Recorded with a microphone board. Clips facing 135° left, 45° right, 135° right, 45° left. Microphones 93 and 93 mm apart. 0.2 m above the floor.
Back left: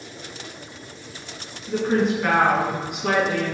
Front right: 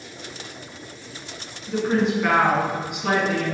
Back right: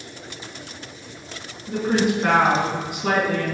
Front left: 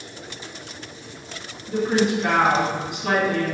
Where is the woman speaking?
135° right, 1.9 m.